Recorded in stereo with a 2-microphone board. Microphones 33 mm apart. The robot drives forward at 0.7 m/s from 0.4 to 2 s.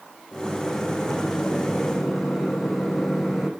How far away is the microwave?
About 8 m.